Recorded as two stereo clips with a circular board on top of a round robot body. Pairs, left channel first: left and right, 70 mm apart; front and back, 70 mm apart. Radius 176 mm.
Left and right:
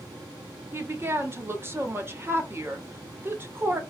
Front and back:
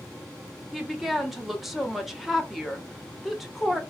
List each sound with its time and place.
0.7 s a woman speaking: 95° right, 1.6 m